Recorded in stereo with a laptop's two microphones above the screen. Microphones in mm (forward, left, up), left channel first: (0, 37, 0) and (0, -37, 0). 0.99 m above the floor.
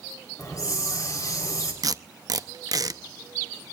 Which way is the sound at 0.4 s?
50° left (ahead or behind).